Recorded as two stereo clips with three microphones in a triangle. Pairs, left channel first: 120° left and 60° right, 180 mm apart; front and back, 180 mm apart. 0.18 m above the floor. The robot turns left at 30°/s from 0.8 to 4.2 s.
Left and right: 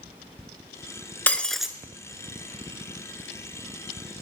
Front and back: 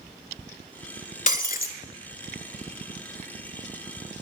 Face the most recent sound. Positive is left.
turn(degrees=-50)